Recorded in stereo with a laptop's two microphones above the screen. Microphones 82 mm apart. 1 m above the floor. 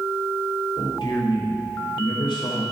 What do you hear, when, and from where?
0.8 s a man speaking: 75° left (ahead or behind), 3 m